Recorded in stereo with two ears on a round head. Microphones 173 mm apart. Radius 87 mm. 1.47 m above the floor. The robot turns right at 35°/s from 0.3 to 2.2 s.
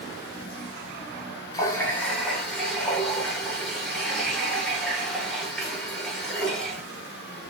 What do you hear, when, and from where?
1.5 s a running tap: 20° left (ahead or behind), 0.9 m; by 6.8 s centre (ahead or behind), 0.9 m